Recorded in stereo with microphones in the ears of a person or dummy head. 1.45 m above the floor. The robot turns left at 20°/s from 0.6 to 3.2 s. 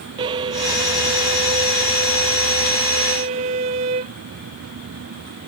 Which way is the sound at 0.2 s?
15° right (ahead or behind).